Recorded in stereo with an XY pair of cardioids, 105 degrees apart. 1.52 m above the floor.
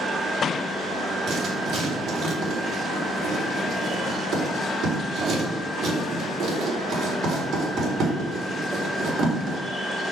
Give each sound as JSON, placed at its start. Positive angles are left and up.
{"t": 1.3, "sound": "writing", "azimuth_deg": -65, "distance_m": 4.0}